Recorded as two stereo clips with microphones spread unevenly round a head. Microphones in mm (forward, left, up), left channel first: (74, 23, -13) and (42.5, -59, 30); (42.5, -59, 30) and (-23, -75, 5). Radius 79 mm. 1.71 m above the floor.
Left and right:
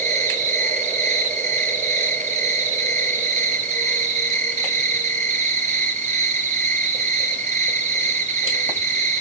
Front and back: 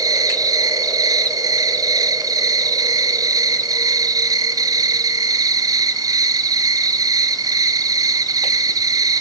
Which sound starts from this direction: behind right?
An insect, at 0.0 s.